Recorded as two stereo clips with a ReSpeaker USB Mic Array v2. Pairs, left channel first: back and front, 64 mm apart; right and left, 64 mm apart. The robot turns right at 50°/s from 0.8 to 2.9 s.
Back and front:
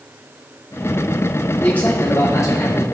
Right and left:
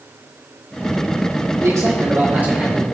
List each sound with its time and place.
1.6 s a man speaking: 110° left, 2 m; by 2.9 s 170° left, 2 m